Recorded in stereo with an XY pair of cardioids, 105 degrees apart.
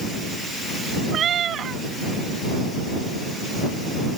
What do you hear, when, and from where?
1.1 s a cat meowing: 55° right